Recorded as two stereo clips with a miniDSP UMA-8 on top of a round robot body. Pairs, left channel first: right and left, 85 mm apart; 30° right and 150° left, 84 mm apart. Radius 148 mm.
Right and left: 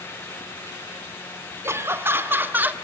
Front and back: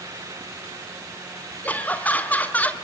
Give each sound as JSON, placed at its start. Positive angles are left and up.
{"t": 1.6, "sound": "laughter", "azimuth_deg": 40, "distance_m": 2.0}